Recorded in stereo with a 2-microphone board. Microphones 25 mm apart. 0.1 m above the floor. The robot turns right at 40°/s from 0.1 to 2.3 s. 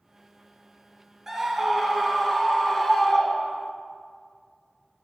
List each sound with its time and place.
1.3 s a scream: 30° right, 1.3 m; by 3.7 s 15° left, 1.3 m